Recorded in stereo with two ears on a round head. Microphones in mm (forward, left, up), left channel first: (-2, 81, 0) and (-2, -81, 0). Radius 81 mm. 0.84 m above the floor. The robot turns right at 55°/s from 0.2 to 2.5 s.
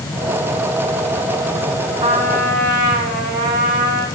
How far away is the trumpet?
About 9.5 m.